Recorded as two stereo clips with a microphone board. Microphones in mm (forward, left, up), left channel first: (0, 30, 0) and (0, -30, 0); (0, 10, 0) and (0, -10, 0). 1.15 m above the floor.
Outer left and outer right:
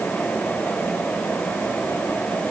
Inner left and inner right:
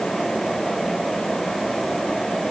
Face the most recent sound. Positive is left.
No sound to turn to.